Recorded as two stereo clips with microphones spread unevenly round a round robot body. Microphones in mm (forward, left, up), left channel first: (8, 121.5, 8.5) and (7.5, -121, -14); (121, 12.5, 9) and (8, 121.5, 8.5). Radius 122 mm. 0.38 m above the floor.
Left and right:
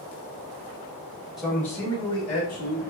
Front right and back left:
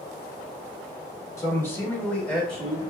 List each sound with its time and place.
1.4 s a man speaking: 20° right, 0.8 m; by 2.8 s 45° left, 1.3 m